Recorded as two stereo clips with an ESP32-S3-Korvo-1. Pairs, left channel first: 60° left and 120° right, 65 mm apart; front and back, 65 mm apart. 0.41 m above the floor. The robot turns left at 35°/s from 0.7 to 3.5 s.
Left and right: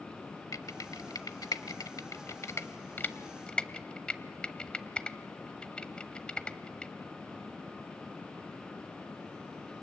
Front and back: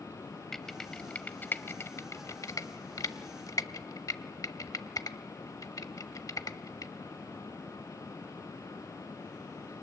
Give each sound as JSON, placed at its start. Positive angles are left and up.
{"t": 0.5, "sound": "typing on a keyboard", "azimuth_deg": 85, "distance_m": 0.9}